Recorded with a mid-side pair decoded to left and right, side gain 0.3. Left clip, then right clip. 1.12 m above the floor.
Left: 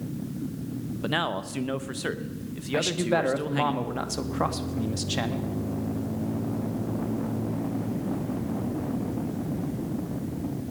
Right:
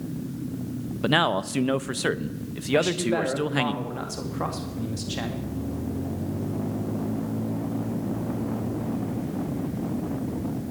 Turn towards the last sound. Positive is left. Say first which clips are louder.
# right 2 dB
turn(degrees=50)